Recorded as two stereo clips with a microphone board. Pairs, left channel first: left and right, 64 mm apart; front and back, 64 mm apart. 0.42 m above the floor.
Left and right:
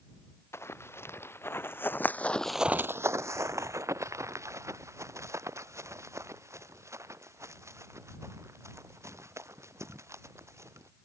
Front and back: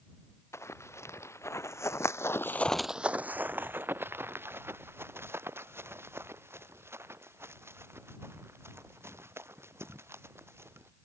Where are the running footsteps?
45° left; by 10.9 s 130° right.